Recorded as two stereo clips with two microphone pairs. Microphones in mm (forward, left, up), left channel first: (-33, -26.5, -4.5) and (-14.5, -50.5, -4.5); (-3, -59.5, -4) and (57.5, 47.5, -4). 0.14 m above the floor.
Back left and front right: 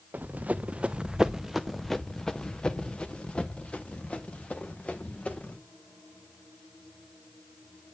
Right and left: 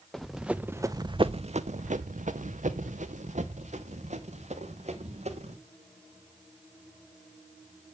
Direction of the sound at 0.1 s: 30° right.